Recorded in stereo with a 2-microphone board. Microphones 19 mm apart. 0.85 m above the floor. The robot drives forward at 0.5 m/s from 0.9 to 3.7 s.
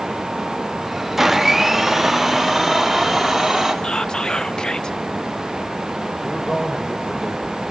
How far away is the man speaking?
About 3.5 m.